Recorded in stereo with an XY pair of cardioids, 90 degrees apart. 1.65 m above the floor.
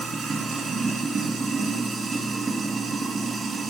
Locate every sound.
0.0 s running water: 55° right, 2.5 m